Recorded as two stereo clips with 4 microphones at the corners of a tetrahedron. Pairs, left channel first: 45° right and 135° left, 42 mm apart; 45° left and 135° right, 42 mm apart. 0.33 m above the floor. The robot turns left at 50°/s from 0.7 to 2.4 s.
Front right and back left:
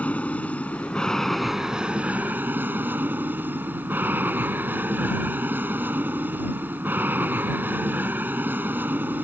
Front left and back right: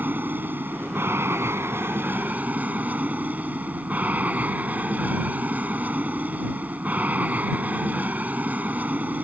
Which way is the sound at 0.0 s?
100° right.